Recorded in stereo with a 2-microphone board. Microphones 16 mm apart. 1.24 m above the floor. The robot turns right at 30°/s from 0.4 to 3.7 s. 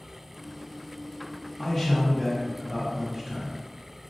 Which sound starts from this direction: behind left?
A man speaking, at 1.6 s.